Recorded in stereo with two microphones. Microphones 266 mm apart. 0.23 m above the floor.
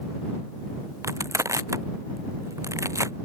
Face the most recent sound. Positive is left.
turn(degrees=-10)  # may be behind; listen again after turning